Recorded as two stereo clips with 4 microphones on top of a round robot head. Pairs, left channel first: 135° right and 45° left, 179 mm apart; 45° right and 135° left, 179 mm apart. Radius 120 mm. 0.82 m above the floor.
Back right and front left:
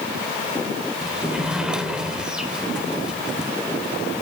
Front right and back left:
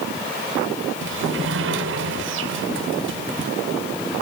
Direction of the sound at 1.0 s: 130° left.